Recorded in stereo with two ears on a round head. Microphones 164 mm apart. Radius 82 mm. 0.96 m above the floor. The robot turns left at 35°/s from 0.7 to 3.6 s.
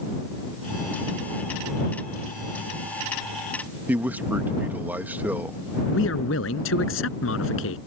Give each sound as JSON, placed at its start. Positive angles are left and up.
{"t": 3.9, "sound": "a man speaking", "side_deg": -10}
{"t": 5.9, "sound": "a man speaking", "side_deg": 75}